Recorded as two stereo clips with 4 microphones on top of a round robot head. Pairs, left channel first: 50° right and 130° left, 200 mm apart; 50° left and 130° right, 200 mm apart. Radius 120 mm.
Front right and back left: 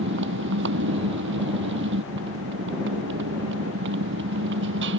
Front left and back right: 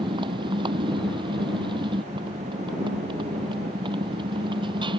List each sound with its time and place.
0.0 s a motorcycle: 160° left